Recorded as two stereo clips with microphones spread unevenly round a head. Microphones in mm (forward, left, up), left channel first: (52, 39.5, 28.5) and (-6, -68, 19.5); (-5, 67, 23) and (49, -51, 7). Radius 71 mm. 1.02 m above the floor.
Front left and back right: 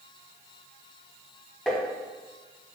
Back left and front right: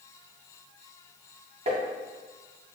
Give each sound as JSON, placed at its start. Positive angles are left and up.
{"t": 1.7, "sound": "tapping", "azimuth_deg": -25, "distance_m": 0.7}